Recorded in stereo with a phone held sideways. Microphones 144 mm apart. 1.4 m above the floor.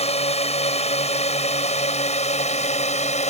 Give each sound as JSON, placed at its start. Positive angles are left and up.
{"t": 0.0, "sound": "a drone", "side_deg": 45}